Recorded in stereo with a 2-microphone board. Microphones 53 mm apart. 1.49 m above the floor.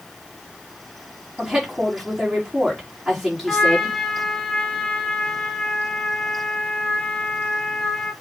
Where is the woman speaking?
5° right (ahead or behind), 4.5 m.